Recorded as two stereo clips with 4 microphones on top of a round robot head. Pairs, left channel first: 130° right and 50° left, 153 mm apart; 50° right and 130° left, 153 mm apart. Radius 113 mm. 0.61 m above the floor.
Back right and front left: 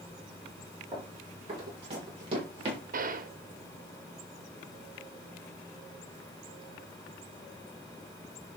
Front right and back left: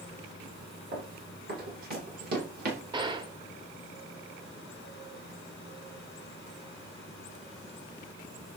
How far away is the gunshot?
About 1.1 m.